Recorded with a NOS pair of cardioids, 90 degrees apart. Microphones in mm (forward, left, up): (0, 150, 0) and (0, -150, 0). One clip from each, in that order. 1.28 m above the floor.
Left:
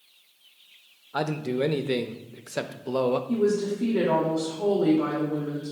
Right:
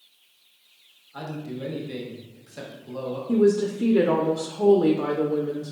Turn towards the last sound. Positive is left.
turn(degrees=-30)